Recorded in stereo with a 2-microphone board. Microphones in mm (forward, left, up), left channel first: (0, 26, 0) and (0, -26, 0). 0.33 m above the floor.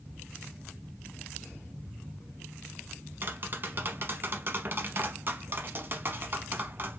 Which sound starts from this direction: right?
Tapping, at 3.2 s.